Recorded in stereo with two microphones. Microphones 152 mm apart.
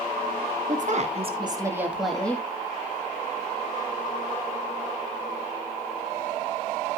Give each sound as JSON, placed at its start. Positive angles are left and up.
{"t": 0.7, "sound": "a woman speaking", "side_deg": -60, "distance_m": 2.0}